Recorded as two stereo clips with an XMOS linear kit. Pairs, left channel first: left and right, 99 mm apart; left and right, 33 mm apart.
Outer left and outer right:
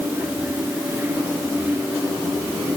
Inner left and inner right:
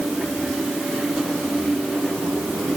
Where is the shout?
I don't hear a shout.